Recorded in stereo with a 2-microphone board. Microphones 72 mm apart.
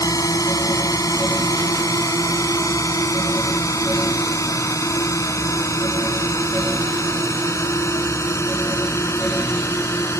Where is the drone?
55° left (ahead or behind); by 10.2 s 40° left (ahead or behind).